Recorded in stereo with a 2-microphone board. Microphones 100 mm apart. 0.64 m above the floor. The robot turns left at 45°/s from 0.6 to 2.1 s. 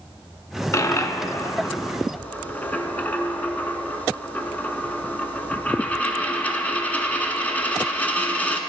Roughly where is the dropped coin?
Left.